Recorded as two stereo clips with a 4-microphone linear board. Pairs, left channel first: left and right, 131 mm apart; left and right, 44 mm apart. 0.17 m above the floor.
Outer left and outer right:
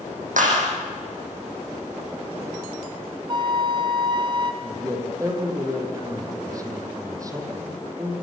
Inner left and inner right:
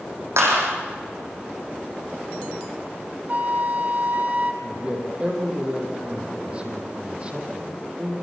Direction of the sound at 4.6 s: 25° right (ahead or behind).